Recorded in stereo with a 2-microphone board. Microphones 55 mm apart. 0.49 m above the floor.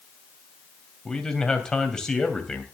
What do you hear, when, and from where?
1.1 s a man speaking: 10° left (ahead or behind), 2.5 m